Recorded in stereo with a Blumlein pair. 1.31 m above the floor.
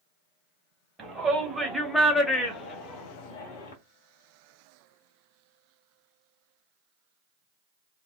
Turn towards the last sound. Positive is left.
turn(degrees=55)